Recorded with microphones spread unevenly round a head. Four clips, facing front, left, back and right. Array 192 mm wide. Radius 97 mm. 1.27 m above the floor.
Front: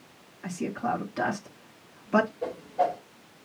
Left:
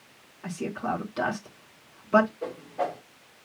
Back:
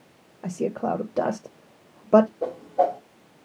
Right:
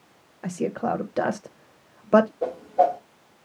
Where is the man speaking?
150° right, 1.1 m.